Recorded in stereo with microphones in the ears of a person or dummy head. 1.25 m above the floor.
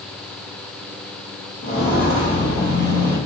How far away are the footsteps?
About 1.7 m.